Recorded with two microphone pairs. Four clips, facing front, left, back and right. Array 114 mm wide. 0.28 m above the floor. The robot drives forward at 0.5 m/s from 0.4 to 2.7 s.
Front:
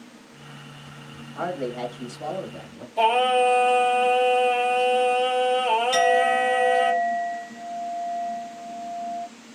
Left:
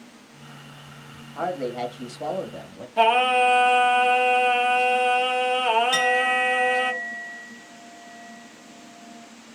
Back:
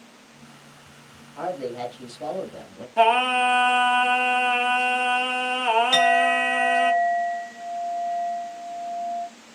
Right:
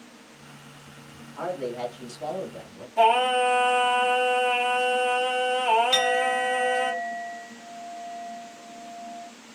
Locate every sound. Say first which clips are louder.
1.4 s a man speaking: left 3 dB, front 1 dB; 65° left, 1.1 m; by 2.9 s 115° left, 1.1 m
3.0 s singing: left 1 dB, even; 145° left, 1.0 m
5.9 s a clink: left 1 dB, even; 170° right, 1.6 m